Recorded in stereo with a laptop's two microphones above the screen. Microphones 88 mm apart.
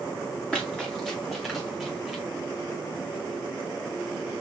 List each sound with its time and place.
0.5 s running footsteps: 10° left (ahead or behind), 3.5 m; by 2.2 s 5° right (ahead or behind), 3 m